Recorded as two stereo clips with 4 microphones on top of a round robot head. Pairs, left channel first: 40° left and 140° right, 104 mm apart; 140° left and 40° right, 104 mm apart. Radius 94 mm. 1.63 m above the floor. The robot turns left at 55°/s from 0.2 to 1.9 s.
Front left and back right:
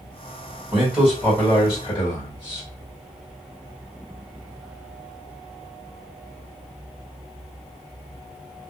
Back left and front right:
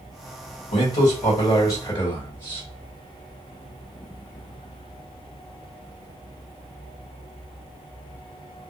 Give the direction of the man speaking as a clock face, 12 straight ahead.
7 o'clock.